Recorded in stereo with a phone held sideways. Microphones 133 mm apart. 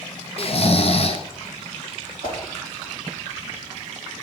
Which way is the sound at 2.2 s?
70° left (ahead or behind).